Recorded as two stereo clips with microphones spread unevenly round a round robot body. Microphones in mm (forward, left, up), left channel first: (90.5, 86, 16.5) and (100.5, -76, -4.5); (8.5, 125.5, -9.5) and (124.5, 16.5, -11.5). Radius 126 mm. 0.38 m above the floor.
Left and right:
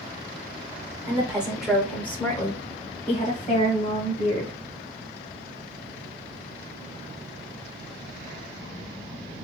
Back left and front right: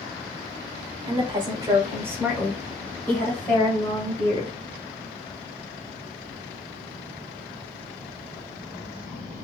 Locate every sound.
1.1 s a woman speaking: 30° right, 1.3 m; by 4.6 s 90° left, 1.7 m